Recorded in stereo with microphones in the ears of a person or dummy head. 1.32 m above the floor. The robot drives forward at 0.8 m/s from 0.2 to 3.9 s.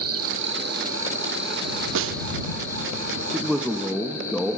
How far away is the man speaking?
About 0.8 m.